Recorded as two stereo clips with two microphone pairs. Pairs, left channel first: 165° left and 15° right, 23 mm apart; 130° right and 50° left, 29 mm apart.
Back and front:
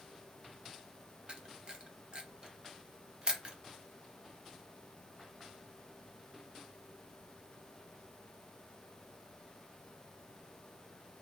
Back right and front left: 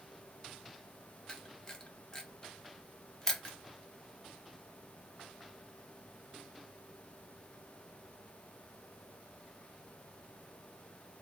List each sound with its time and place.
1.3 s a camera shutter: 60° right, 0.6 m